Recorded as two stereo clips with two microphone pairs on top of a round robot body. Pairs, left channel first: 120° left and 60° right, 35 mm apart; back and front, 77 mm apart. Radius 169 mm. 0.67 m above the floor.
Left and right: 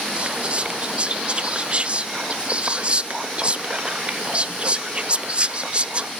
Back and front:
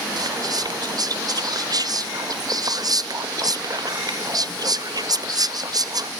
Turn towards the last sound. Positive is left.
turn(degrees=-15)